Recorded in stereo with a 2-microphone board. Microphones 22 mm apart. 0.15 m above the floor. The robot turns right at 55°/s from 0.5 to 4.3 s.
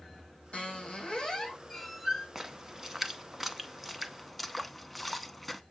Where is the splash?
15° right (ahead or behind), 0.7 m; by 5.6 s centre (ahead or behind), 0.7 m.